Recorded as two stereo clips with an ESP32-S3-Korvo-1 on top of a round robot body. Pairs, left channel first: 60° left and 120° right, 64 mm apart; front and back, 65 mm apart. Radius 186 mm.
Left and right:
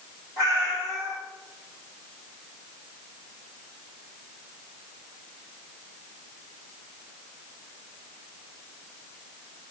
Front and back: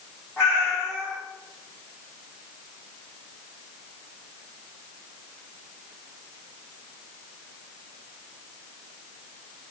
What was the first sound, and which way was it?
A cat meowing, 90° left.